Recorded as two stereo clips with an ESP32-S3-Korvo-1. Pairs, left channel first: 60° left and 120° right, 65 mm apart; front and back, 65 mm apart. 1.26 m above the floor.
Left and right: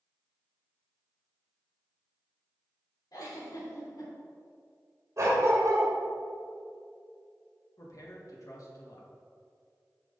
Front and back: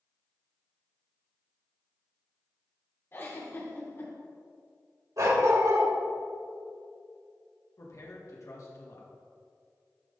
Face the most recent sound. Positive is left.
turn(degrees=35)